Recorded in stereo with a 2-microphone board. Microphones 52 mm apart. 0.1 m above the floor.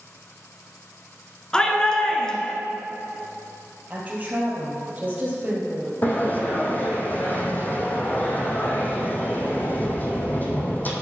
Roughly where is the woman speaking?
Right.